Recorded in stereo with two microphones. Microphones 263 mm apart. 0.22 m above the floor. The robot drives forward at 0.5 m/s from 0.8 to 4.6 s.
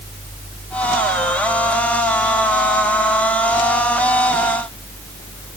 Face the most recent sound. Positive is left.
No sound to turn to.